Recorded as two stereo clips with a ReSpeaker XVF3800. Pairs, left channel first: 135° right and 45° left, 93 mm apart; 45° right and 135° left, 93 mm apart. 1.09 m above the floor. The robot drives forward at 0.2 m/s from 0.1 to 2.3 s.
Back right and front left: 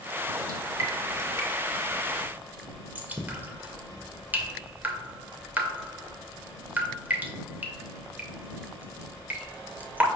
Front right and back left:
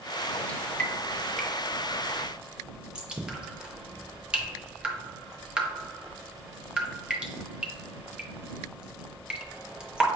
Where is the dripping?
25° left, 0.7 m; by 10.1 s 70° left, 0.6 m.